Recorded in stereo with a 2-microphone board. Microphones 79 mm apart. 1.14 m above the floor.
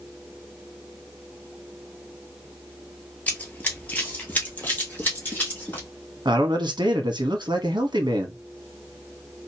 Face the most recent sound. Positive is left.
turn(degrees=-70)  # may be behind; listen again after turning